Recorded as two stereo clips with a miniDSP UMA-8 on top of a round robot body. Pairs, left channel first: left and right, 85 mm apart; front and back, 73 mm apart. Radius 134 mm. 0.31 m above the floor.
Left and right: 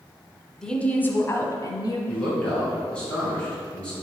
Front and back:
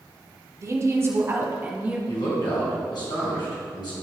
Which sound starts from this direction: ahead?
A man speaking, at 2.1 s.